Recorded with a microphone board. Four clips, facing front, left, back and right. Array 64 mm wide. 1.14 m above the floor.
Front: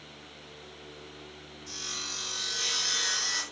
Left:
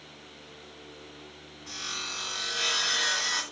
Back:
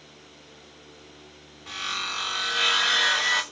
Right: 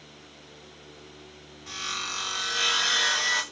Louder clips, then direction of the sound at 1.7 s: Right 4 dB, back 11 dB; 170° right.